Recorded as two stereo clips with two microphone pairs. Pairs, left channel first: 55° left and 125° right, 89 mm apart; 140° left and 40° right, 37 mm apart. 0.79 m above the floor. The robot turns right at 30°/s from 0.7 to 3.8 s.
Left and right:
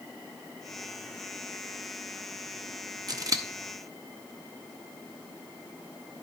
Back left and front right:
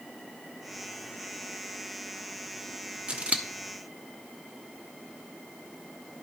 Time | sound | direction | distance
3.1 | scissors | 90° right | 0.5 m